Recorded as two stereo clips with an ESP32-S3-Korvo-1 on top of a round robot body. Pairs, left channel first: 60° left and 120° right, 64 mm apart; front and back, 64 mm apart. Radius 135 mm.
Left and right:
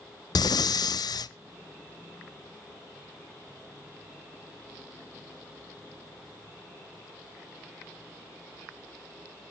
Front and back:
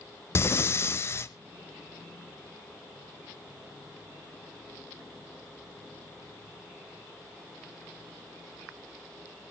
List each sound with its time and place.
0.3 s breathing: 50° left, 0.6 m